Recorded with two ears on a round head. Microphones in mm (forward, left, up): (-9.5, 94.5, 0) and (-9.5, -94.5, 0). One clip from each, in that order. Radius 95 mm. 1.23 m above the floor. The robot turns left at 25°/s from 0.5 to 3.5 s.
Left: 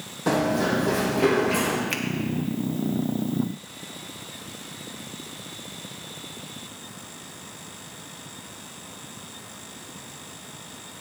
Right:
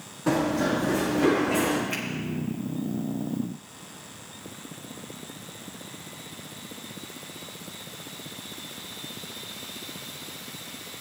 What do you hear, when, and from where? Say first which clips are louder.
0.3 s running footsteps: left 2 dB; 45° left (ahead or behind), 3.5 m; by 1.8 s 70° left (ahead or behind), 4 m
1.9 s a finger snap: left 3 dB; 80° left, 1.5 m; by 2.0 s 75° left (ahead or behind), 1.5 m